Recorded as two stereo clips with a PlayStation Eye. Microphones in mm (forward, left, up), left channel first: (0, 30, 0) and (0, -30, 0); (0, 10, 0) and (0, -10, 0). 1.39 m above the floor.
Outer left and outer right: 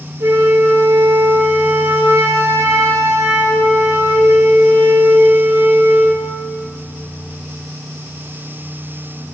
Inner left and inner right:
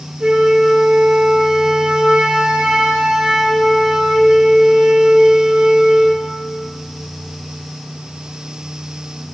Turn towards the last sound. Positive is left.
turn(degrees=-75)  # may be behind; listen again after turning